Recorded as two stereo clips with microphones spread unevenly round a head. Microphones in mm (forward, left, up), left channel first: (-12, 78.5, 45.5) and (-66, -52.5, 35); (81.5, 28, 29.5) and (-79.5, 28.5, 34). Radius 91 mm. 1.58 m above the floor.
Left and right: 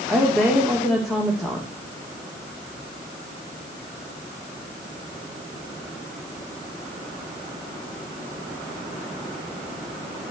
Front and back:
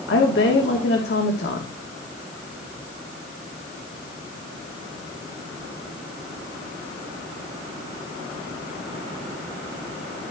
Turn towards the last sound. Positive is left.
turn(degrees=-20)